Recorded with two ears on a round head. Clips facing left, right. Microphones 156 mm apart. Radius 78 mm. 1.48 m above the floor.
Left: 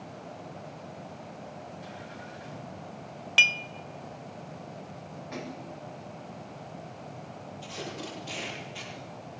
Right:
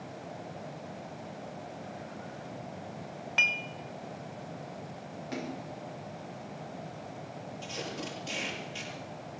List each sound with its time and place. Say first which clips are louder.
3.4 s dishes clattering: left 4 dB; 40° left (ahead or behind), 0.6 m
5.3 s a splash: right 2 dB; 40° right (ahead or behind), 5.5 m
7.6 s tape being pulled: even; 45° right (ahead or behind), 8 m